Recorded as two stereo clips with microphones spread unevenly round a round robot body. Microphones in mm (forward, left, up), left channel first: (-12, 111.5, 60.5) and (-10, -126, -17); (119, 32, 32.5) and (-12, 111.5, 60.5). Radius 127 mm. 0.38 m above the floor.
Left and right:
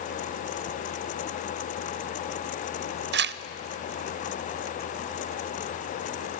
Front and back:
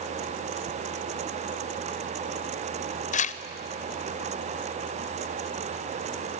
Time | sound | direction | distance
3.1 | tearing paper | 60° right | 0.6 m